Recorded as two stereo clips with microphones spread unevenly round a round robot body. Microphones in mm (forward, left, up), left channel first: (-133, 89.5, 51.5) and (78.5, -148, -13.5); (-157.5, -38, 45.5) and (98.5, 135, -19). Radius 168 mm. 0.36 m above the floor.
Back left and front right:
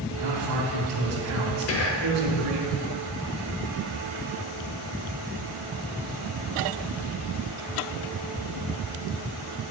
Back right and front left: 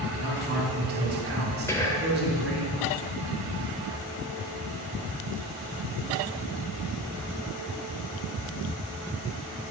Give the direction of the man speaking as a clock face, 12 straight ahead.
1 o'clock.